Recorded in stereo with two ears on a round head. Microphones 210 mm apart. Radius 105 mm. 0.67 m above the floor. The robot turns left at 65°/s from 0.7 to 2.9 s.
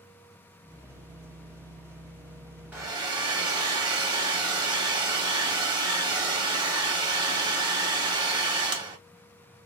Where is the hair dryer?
5° right (ahead or behind), 0.7 m; by 9.0 s 20° right (ahead or behind), 0.7 m.